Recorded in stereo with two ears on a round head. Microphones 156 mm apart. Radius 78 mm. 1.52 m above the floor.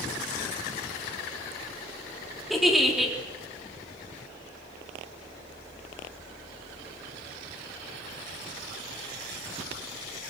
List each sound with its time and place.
2.5 s a giggle: centre (ahead or behind), 4 m